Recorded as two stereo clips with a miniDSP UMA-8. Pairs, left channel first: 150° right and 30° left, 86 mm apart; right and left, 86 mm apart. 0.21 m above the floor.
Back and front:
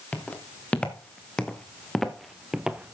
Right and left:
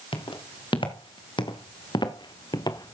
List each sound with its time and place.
0.1 s footsteps: 75° right, 3 m; by 2.9 s 45° right, 1.2 m